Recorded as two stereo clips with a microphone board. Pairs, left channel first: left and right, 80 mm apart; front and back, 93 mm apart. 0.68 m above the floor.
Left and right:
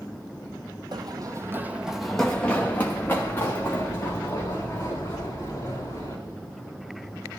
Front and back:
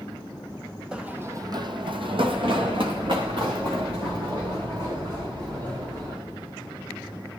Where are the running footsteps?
100° right, 1.3 m; by 6.2 s 140° left, 7 m.